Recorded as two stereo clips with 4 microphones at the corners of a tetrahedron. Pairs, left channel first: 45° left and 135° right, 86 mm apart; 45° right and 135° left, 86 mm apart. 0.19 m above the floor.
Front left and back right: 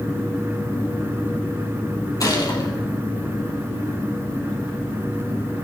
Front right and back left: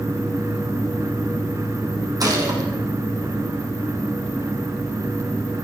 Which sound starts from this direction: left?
A gunshot, at 2.2 s.